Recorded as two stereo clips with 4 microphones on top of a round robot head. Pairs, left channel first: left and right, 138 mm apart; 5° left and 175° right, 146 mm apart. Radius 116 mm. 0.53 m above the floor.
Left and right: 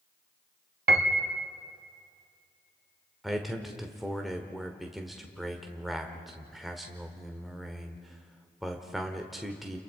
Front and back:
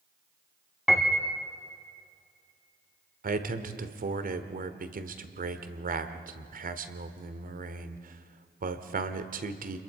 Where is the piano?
90° right, 0.9 m.